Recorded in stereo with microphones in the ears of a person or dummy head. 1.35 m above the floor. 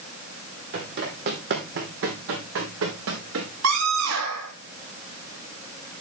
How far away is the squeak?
I don't hear a squeak.